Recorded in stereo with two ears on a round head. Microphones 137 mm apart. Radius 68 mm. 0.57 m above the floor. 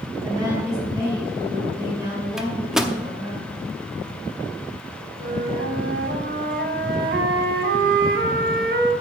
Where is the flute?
65° right (ahead or behind), 1.0 m.